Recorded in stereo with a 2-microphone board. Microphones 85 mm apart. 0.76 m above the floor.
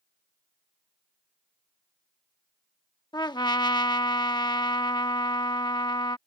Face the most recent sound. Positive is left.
turn(degrees=60)  # may be behind; listen again after turning